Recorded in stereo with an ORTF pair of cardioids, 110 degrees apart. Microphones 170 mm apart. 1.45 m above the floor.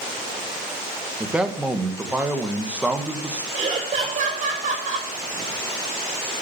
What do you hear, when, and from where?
1.2 s a man speaking: 5° right, 1.4 m
3.5 s laughter: 45° right, 5 m